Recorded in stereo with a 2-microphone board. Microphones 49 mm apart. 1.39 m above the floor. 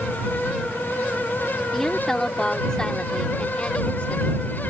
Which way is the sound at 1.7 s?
5° left (ahead or behind).